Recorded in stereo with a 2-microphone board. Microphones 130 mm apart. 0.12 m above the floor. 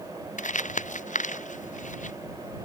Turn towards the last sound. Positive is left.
turn(degrees=75)  # may be behind; listen again after turning